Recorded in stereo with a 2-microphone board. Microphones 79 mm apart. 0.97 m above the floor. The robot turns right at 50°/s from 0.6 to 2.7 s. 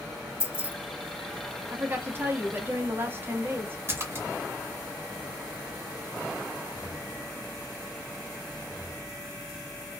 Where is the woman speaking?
25° right (ahead or behind), 0.6 m.